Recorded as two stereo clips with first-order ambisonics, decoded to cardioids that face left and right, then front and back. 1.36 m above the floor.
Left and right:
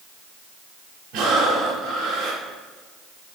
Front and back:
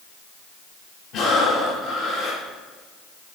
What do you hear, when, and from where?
1.1 s breathing: 55° right, 4.5 m